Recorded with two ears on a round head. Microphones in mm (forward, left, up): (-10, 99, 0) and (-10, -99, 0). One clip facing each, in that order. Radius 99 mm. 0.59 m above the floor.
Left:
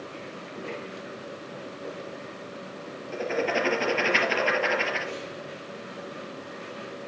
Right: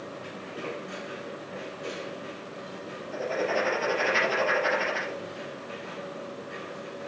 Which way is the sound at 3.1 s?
75° left (ahead or behind).